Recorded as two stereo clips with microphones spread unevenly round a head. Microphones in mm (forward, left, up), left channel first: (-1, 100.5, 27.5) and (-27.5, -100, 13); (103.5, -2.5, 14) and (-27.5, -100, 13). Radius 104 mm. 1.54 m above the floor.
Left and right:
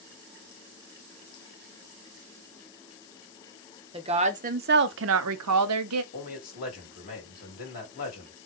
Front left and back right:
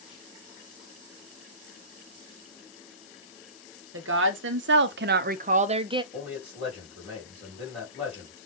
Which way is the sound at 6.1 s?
130° left.